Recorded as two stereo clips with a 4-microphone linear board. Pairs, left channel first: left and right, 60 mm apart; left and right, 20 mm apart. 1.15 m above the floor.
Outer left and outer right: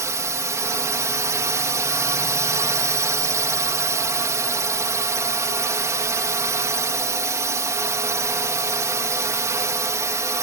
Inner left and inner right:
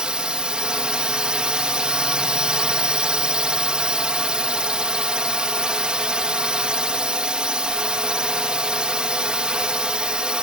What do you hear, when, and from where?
0.0 s a drone: 60° right (ahead or behind)